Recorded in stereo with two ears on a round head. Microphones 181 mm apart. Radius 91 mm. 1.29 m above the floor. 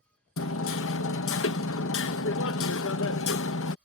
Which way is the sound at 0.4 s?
65° left (ahead or behind).